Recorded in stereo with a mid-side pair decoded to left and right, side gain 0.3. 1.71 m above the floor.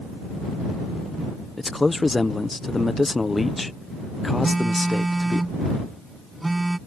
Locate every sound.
1.6 s a man speaking: 25° left
4.4 s a phone buzzing: 25° right